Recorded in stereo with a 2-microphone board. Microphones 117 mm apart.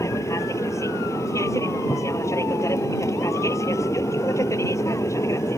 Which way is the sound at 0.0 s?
25° left (ahead or behind).